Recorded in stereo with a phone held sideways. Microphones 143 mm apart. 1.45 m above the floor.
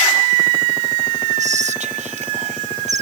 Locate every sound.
1.4 s whispering: 55° right (ahead or behind)